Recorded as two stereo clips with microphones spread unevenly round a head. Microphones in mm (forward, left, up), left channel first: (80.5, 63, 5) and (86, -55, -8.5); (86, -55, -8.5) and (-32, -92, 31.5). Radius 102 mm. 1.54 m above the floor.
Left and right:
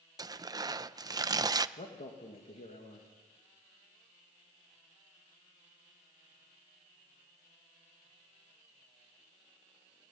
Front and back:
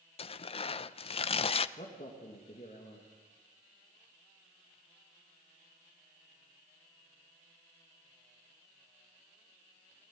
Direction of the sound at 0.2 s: 30° right.